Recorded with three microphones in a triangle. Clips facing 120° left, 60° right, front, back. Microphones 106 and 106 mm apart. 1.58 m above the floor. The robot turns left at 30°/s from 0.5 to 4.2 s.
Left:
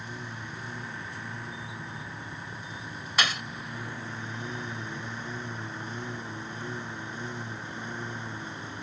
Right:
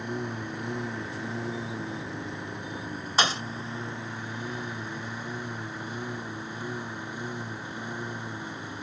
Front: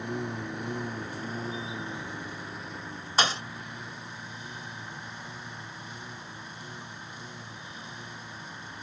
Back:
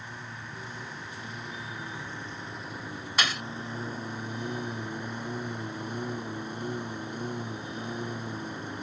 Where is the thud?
25° right; by 3.4 s 30° right.